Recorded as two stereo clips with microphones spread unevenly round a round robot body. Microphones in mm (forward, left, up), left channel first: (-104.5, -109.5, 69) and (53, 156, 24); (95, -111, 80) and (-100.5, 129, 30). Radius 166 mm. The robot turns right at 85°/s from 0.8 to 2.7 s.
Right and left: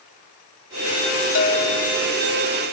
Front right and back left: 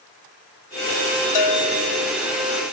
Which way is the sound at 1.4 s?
65° right.